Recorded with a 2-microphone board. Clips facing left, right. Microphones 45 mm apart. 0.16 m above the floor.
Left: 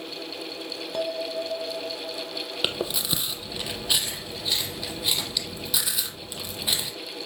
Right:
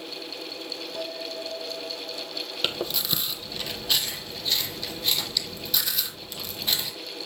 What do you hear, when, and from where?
0.9 s a bell: 70° left (ahead or behind), 1.0 m
2.6 s chewing: 10° left (ahead or behind), 1.1 m